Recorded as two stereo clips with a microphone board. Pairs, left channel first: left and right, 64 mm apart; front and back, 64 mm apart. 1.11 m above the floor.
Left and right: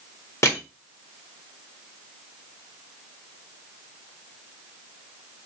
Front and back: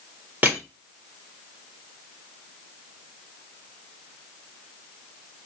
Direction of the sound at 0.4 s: 125° left.